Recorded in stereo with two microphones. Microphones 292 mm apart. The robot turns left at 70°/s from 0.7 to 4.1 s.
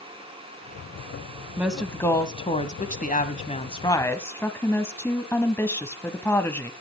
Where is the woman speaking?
5° right (ahead or behind), 1.2 m; by 6.7 s 10° left (ahead or behind), 1.2 m.